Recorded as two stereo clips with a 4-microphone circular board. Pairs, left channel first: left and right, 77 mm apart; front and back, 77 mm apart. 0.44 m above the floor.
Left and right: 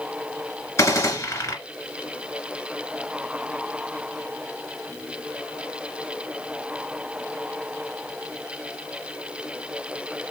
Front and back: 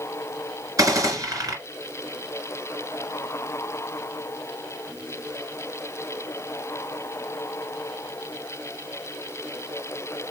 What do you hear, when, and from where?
0.8 s a gunshot: 140° left, 1.8 m